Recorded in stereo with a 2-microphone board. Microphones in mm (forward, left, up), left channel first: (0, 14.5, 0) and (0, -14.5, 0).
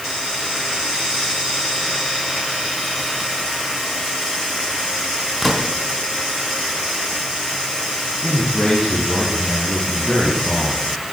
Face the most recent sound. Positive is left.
turn(degrees=45)  # may be behind; listen again after turning